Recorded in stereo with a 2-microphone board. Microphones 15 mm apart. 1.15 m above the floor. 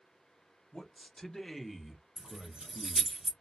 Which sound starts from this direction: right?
Keys jangling, at 2.2 s.